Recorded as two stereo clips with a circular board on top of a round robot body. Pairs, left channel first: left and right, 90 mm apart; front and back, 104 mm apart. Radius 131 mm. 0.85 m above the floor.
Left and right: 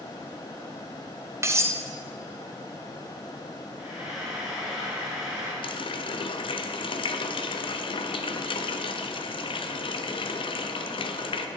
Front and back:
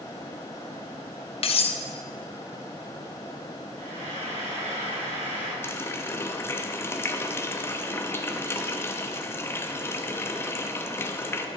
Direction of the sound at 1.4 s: 30° right.